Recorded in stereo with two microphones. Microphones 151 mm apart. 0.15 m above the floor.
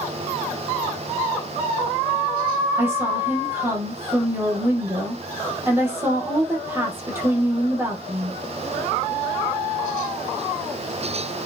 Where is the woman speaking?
15° right (ahead or behind), 5 m.